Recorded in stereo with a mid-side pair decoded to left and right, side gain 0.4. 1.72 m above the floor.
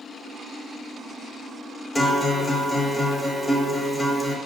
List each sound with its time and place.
1.9 s a guitar: 20° left, 0.9 m